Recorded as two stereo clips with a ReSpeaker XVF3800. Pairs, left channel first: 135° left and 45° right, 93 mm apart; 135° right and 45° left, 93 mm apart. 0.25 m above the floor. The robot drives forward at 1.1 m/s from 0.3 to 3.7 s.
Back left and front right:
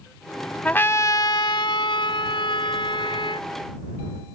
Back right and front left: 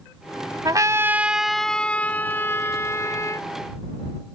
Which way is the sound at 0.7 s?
65° left.